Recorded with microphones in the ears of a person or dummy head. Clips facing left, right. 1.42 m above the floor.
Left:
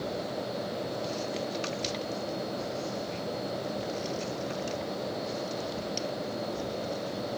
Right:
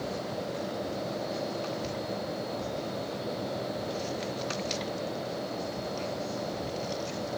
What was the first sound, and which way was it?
Only background noise.